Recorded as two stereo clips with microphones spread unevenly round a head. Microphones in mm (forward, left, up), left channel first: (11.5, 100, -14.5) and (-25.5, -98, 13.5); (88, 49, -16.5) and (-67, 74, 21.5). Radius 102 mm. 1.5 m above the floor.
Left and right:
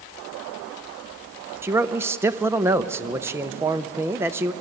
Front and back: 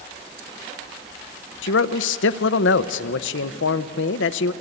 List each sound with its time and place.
1.6 s a man speaking: 25° right, 0.9 m